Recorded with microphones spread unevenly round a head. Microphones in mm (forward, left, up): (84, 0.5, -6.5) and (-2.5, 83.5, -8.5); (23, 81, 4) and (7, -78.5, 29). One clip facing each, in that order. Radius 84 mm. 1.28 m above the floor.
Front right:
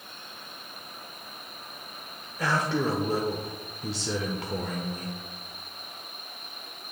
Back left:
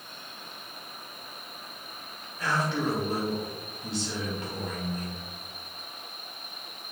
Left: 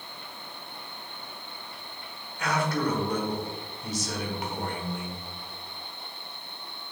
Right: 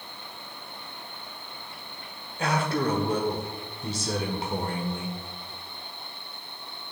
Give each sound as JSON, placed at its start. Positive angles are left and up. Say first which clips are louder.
{"t": 2.4, "sound": "a man speaking", "louder": "front right 2 dB, right 1 dB", "azimuth_deg": -35, "distance_m": 1.1}